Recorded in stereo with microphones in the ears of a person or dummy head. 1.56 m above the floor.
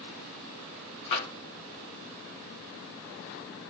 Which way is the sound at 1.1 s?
35° left (ahead or behind).